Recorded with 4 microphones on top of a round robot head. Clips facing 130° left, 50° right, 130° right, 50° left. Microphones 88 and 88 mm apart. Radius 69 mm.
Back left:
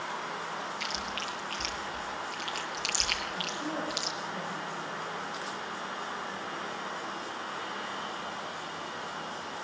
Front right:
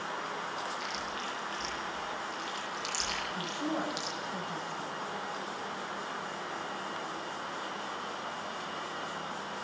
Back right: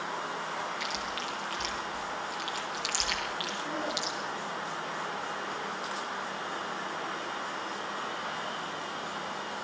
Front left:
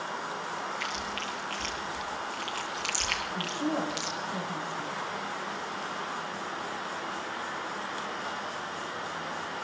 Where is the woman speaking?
20° left, 5 m.